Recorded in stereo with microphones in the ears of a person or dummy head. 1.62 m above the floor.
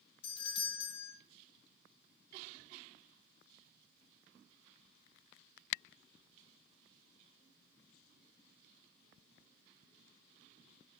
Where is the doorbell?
30° left (ahead or behind), 1.1 m.